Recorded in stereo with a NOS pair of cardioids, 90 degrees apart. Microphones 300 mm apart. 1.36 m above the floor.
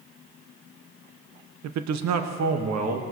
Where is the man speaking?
65° right, 0.9 m; by 3.0 s 60° right, 1.8 m.